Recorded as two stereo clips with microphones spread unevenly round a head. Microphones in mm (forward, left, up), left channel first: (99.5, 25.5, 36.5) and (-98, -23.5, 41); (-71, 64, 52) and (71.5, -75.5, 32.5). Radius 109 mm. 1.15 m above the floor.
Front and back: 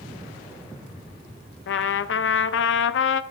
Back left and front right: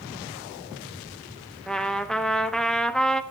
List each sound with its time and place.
1.7 s a trumpet: 50° left, 0.6 m